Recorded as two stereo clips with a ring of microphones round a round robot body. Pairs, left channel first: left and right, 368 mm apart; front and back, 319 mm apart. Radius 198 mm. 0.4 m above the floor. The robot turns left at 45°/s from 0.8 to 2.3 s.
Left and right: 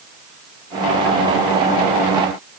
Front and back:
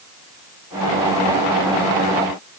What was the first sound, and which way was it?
Only background noise.